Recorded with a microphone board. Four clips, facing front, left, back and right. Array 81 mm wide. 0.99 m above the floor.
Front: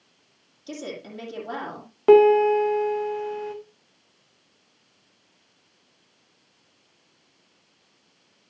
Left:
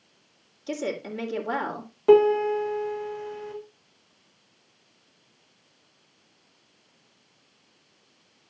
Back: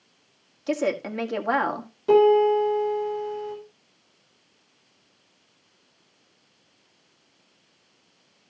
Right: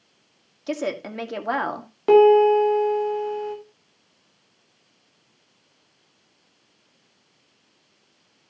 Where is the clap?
No clap in this recording.